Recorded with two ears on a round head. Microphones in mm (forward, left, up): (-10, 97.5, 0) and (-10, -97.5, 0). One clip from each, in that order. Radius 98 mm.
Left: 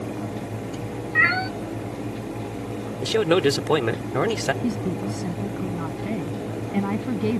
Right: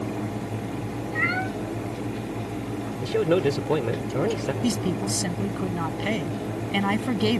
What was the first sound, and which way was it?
A cat meowing, 35° left (ahead or behind).